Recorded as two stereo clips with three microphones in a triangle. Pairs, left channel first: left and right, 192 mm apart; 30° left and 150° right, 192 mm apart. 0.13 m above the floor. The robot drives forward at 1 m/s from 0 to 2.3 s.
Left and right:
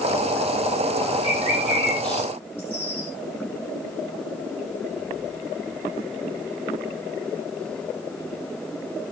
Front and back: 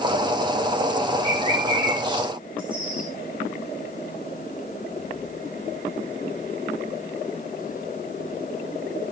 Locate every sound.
1.2 s a bird: 140° left, 6.5 m; by 3.1 s 145° left, 7.5 m